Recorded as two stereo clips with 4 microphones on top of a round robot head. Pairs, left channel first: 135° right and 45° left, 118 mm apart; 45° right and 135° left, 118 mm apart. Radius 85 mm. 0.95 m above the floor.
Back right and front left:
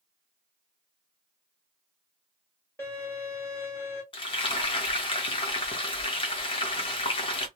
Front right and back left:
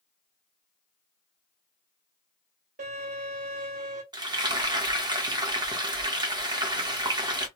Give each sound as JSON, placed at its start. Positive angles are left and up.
{"t": 2.8, "sound": "a violin", "azimuth_deg": 155, "distance_m": 1.8}
{"t": 4.1, "sound": "frying", "azimuth_deg": -175, "distance_m": 1.1}